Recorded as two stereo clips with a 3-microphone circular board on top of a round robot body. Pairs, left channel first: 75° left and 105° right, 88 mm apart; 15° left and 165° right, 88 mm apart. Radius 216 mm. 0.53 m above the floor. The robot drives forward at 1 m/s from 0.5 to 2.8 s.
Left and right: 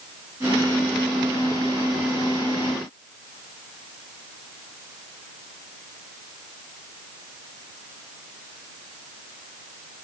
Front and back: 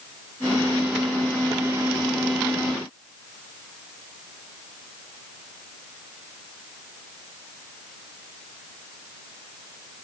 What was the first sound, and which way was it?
Only background noise.